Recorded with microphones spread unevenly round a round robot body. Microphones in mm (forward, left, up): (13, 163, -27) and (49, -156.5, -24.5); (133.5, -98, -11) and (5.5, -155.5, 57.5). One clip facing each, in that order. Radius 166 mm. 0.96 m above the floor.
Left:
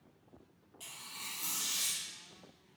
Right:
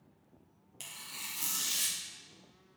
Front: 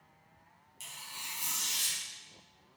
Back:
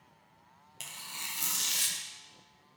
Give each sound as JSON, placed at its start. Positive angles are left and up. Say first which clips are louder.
{"t": 0.8, "sound": "tearing paper", "louder": "right 2 dB, back 2 dB", "azimuth_deg": -125, "distance_m": 0.6}